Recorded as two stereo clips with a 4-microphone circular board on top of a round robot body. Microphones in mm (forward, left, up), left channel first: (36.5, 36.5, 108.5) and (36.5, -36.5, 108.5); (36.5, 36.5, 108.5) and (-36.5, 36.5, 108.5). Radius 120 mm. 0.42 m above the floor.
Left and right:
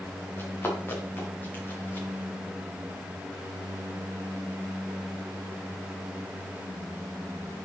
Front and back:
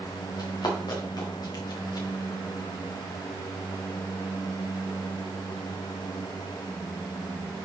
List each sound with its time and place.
0.4 s running footsteps: 30° left, 4 m; by 2.1 s 25° left, 5.5 m